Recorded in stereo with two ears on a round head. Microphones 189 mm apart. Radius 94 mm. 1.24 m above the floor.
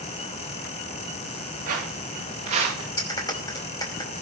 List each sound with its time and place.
1.7 s footsteps: 40° right (ahead or behind), 9 m; by 2.9 s 30° right (ahead or behind), 9.5 m
3.0 s a clap: 20° left (ahead or behind), 5 m